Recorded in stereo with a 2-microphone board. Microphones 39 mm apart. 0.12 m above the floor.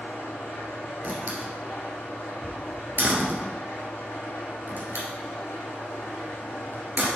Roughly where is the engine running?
Left.